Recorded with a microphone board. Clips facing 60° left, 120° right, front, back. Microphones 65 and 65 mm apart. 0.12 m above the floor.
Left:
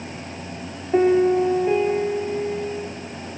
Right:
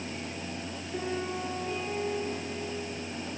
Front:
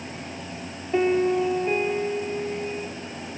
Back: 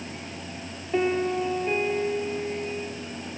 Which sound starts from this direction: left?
A piano, at 0.9 s.